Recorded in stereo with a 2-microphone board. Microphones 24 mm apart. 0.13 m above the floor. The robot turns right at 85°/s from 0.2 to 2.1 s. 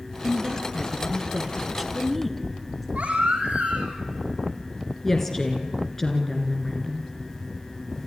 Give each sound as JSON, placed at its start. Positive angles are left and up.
{"t": 0.2, "sound": "a woman speaking", "azimuth_deg": -155, "distance_m": 1.9}
{"t": 3.0, "sound": "a baby crying", "side_deg": -75, "distance_m": 5.0}
{"t": 5.0, "sound": "a woman speaking", "side_deg": 15, "distance_m": 2.0}